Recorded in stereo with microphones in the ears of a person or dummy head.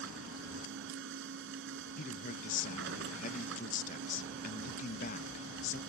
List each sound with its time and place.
0.0 s a machine running: 60° right (ahead or behind)
2.0 s a man speaking: 40° left (ahead or behind)